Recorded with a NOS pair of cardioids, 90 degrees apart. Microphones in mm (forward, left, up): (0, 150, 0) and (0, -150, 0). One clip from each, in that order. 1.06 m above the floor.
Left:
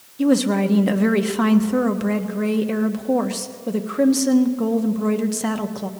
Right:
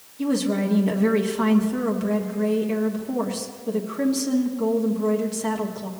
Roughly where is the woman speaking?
Ahead left.